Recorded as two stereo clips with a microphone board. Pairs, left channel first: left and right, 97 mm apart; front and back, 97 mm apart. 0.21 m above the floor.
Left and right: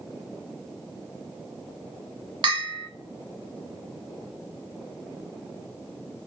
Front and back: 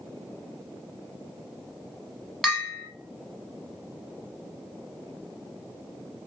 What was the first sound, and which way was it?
A bell, 85° right.